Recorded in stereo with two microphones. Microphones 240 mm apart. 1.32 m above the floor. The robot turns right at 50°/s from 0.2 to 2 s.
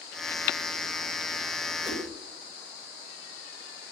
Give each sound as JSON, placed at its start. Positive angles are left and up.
{"t": 1.8, "sound": "a whoosh", "side_deg": -15, "distance_m": 6.0}